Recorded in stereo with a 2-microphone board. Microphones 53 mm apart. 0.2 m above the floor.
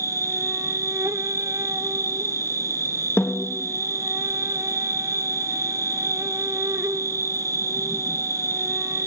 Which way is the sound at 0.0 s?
75° right (ahead or behind).